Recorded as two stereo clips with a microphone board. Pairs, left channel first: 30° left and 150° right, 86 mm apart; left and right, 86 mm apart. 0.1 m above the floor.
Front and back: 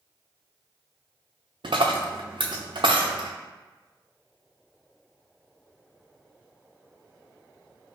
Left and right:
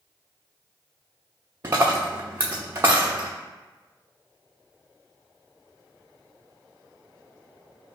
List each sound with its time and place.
1.6 s a dropped coin: 150° right, 0.8 m